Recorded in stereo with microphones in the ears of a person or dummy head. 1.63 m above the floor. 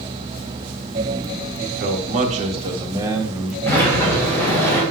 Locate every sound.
1.6 s a man speaking: 60° right (ahead or behind), 1.7 m; by 3.6 s 5° right (ahead or behind), 1.7 m
3.7 s a sliding door: 15° left (ahead or behind), 4.5 m